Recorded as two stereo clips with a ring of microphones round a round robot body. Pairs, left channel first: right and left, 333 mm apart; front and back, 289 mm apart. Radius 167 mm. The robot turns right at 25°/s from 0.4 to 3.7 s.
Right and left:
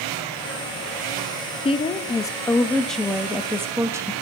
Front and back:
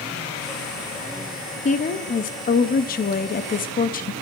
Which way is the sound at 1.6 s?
35° right.